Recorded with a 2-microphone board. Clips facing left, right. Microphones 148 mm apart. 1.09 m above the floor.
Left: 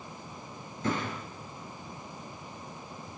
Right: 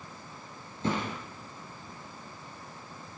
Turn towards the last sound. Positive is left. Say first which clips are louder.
# even
turn(degrees=-30)  # may be behind; listen again after turning